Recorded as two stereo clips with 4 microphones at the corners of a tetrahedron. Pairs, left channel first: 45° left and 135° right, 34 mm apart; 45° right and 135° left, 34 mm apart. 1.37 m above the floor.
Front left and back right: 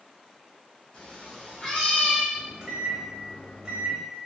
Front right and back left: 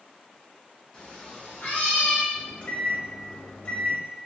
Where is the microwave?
85° right, 0.9 m.